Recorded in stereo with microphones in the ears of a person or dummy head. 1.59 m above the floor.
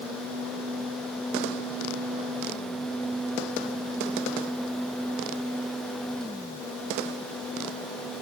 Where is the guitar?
I don't hear a guitar.